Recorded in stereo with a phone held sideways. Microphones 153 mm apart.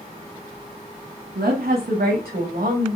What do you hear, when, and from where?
1.4 s a woman speaking: 90° right, 1.8 m; by 3.0 s 65° right (ahead or behind), 2 m